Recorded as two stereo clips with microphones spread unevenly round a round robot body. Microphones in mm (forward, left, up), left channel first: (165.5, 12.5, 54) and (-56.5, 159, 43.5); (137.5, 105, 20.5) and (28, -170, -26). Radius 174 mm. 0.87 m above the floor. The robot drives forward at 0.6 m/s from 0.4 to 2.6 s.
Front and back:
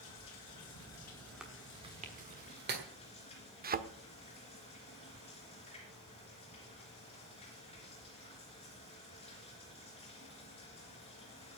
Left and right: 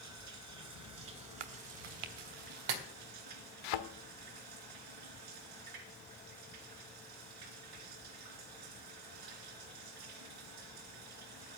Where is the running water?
75° right, 2.5 m; by 11.6 s 110° right, 2.5 m.